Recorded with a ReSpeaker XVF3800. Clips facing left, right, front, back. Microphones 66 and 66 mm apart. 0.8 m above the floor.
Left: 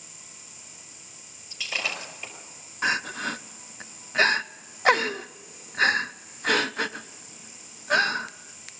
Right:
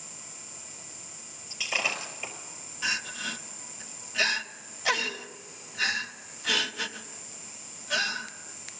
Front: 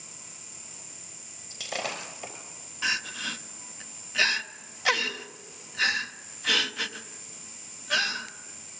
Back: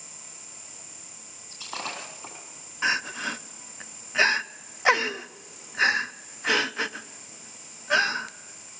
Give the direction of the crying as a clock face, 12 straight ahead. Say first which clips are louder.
Left 6 dB, back 4 dB; 8 o'clock.